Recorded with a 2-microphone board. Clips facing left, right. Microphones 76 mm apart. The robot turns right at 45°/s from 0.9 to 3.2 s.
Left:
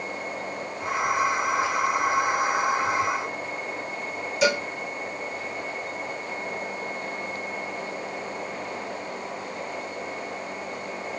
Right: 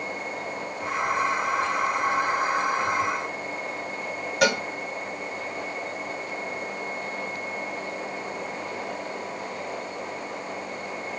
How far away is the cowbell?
About 1.1 m.